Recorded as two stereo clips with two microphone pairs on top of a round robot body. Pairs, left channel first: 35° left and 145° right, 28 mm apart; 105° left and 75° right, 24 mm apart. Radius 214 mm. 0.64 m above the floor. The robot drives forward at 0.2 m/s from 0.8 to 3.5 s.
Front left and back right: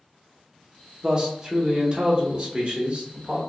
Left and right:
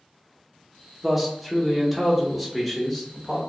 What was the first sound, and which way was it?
A man speaking, 150° right.